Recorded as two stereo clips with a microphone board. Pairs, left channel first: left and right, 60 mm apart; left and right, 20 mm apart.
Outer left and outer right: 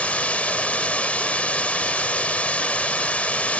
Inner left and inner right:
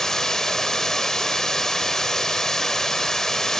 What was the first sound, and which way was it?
Running water, 25° left (ahead or behind).